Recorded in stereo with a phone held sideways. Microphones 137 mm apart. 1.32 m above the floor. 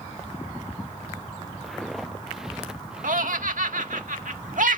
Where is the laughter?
80° right.